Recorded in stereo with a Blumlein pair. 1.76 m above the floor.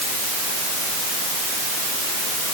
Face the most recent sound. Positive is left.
No sound to turn to.